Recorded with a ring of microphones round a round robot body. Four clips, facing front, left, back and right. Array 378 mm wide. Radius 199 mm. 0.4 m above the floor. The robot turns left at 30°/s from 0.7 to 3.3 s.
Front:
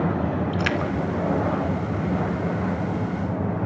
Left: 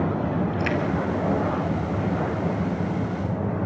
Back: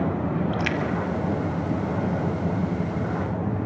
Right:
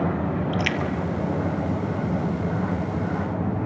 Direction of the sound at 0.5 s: 65° right.